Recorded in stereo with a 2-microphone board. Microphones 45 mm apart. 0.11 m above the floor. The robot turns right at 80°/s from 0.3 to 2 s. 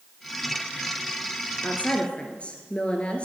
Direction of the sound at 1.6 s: 40° left (ahead or behind).